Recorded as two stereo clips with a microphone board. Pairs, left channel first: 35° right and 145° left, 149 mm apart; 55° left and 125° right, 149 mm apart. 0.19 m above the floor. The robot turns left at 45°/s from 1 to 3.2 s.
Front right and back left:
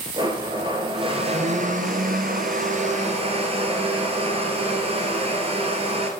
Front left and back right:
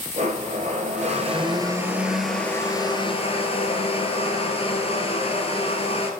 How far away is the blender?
About 1.4 m.